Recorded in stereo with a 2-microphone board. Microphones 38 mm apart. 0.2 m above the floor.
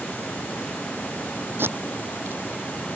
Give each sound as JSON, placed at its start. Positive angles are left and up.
{"t": 1.6, "sound": "tape being pulled", "side_deg": -70}